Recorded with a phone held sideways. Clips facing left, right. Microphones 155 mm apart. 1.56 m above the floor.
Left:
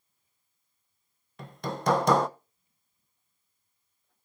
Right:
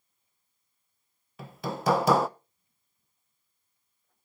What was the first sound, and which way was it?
Hammering, 5° right (ahead or behind).